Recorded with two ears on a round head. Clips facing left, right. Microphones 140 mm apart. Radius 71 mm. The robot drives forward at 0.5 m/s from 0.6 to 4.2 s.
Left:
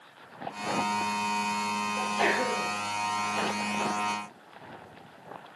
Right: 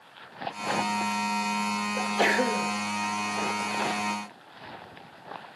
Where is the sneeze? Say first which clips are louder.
Right 3 dB; 40° right (ahead or behind), 1.5 m; by 2.7 s 50° right (ahead or behind), 1.3 m.